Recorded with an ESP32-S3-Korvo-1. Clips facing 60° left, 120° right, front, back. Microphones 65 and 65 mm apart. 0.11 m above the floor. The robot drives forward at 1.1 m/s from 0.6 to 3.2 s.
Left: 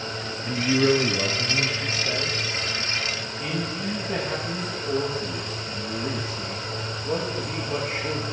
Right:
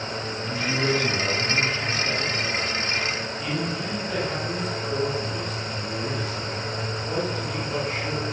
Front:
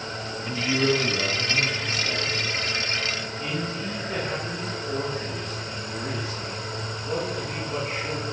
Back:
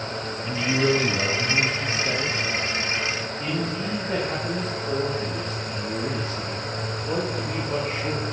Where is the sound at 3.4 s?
130° left, 8.5 m.